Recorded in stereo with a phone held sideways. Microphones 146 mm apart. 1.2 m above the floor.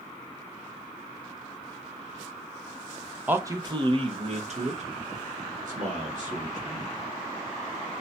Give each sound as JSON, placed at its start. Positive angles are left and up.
{"t": 3.3, "sound": "a man speaking", "side_deg": -10, "distance_m": 0.5}